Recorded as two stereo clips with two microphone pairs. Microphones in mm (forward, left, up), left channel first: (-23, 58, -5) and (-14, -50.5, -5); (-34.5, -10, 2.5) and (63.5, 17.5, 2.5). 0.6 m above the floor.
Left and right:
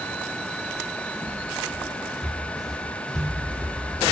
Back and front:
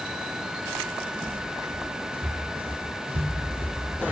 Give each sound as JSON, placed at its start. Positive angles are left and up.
{"t": 0.7, "sound": "footsteps", "azimuth_deg": -30, "distance_m": 1.9}